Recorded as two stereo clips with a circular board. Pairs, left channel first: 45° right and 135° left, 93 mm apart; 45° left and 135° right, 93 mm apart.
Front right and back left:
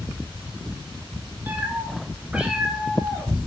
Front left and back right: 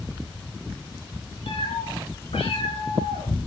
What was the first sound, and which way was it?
A cat meowing, 65° left.